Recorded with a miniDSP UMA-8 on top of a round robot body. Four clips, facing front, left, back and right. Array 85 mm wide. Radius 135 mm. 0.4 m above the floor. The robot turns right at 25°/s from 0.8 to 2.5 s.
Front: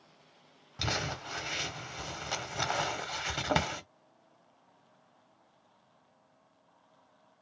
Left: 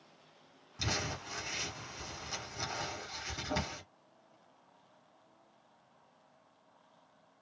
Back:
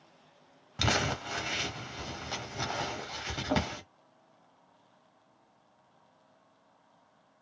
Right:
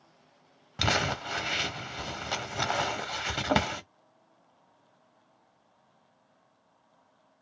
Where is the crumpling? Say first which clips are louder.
Right 10 dB, back 5 dB; 110° right, 0.9 m; by 3.8 s 70° right, 0.9 m.